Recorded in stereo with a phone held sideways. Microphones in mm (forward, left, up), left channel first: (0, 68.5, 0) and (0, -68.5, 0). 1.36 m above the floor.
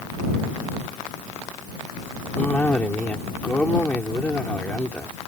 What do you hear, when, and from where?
2.4 s a cough: 10° left (ahead or behind)